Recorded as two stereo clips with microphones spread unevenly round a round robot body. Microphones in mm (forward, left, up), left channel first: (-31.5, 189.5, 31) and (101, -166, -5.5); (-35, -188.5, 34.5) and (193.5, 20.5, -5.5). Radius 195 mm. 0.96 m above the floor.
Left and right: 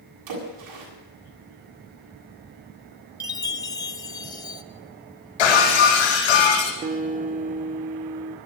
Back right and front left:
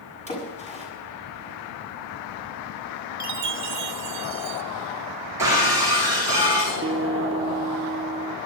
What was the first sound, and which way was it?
A splash, 70° right.